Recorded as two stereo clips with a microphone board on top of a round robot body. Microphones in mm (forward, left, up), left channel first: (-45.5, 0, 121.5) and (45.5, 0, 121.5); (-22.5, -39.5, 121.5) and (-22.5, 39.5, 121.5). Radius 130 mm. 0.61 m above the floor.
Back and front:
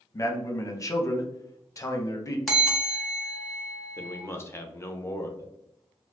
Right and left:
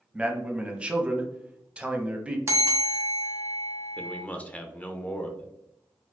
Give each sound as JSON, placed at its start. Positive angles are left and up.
{"t": 0.1, "sound": "a man speaking", "azimuth_deg": 155, "distance_m": 0.8}
{"t": 2.5, "sound": "a bell", "azimuth_deg": 95, "distance_m": 1.3}
{"t": 4.0, "sound": "a man speaking", "azimuth_deg": -145, "distance_m": 0.7}